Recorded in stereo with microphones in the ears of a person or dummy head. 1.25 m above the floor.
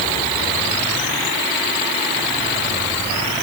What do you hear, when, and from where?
Only background noise.